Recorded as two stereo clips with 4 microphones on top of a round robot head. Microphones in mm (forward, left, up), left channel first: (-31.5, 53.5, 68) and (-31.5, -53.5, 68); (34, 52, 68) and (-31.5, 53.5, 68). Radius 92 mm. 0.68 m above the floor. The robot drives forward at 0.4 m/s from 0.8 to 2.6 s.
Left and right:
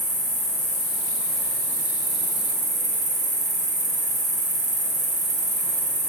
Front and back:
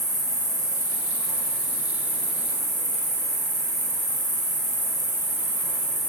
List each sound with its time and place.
0.0 s an insect: 45° right, 0.8 m; by 6.1 s 105° right, 0.6 m